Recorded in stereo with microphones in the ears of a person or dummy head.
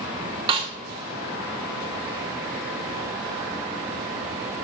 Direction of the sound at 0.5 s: 25° right (ahead or behind).